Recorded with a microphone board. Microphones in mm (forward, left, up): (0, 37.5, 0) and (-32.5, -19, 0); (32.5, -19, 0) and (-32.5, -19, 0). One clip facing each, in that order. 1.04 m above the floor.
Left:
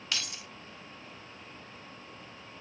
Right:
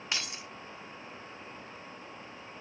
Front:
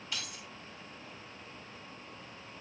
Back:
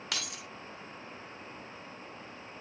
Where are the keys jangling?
175° left, 0.6 m.